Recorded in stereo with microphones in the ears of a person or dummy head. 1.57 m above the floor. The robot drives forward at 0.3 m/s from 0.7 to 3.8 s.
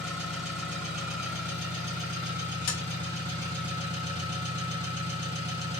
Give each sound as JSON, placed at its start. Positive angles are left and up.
{"t": 0.0, "sound": "an engine running", "side_deg": -5, "distance_m": 1.6}
{"t": 2.7, "sound": "tapping", "side_deg": 55, "distance_m": 1.7}